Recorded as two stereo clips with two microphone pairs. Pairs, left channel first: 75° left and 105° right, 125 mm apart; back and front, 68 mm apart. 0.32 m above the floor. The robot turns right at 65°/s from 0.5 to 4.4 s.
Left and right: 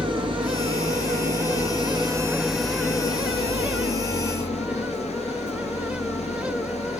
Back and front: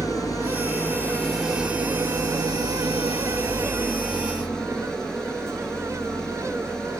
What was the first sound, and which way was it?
An engine running, 155° right.